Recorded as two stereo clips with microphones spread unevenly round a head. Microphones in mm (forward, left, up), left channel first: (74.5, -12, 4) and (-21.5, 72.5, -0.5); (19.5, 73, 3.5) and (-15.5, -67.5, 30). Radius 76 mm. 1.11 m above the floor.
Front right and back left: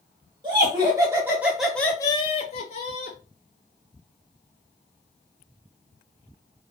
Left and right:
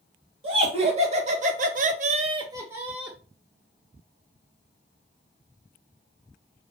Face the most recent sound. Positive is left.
turn(degrees=-10)